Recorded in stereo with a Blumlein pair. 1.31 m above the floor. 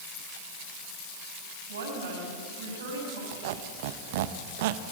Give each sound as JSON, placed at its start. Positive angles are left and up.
{"t": 1.7, "sound": "a woman speaking", "azimuth_deg": -65, "distance_m": 7.5}
{"t": 3.3, "sound": "a squeak", "azimuth_deg": -50, "distance_m": 1.0}